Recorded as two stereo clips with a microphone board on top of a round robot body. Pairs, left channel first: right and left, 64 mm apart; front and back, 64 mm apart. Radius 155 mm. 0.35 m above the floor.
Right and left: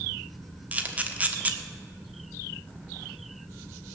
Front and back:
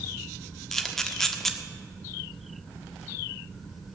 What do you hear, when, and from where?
0.7 s a camera shutter: 75° left, 1.5 m